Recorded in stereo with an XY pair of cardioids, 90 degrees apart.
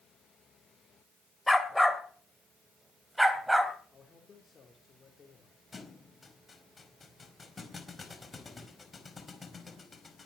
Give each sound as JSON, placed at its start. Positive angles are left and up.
{"t": 1.5, "sound": "a dog barking", "azimuth_deg": 10, "distance_m": 3.0}
{"t": 3.9, "sound": "a man speaking", "azimuth_deg": 45, "distance_m": 4.0}
{"t": 5.7, "sound": "a thud", "azimuth_deg": 30, "distance_m": 4.5}